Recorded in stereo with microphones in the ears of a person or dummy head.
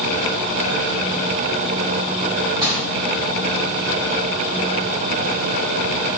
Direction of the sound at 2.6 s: 25° right (ahead or behind).